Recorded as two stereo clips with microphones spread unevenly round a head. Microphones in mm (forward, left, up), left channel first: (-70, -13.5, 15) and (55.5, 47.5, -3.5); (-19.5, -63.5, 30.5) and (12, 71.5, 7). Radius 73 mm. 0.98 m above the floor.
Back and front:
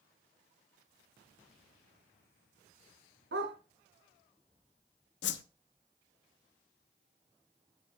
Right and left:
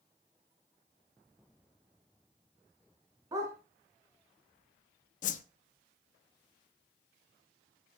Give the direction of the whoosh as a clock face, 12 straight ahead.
5 o'clock.